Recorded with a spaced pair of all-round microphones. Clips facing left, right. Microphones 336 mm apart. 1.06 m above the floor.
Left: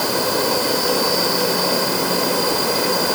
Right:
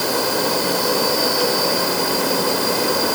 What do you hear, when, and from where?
Only background noise.